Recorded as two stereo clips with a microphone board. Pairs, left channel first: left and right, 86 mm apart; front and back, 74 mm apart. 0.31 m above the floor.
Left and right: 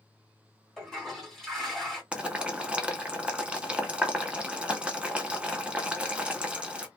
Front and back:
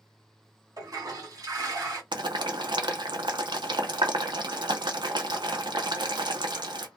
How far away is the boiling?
About 0.6 m.